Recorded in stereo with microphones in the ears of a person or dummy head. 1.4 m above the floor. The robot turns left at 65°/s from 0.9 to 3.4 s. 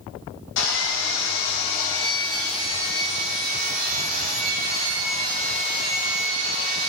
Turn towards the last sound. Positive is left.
turn(degrees=-55)